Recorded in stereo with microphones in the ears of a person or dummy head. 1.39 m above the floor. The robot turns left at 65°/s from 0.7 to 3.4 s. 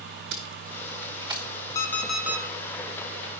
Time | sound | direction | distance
0.3 | tape being pulled | 60° right (ahead or behind) | 1.1 m
1.8 | an alarm clock | 25° left | 1.1 m